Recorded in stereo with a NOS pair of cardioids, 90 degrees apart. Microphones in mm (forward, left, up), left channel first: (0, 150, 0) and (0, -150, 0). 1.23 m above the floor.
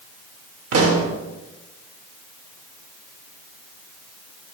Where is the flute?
No flute in this recording.